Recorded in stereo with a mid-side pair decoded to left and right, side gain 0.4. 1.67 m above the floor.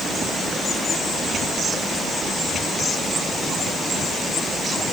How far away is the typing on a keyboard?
No typing on a keyboard in this recording.